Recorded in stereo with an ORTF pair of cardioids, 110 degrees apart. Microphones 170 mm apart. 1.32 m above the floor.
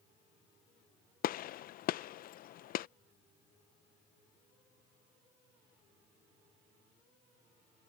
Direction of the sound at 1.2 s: 60° left.